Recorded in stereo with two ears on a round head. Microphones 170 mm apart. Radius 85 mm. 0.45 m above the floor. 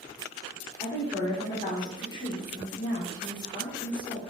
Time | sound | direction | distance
0.8 | a woman speaking | 25° left (ahead or behind) | 0.9 m